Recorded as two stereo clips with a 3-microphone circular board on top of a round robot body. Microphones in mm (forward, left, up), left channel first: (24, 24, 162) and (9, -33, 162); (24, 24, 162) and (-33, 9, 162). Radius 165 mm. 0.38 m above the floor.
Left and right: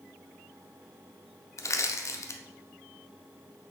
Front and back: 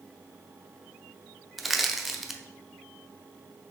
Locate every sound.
1.6 s crushing: 110° left, 0.6 m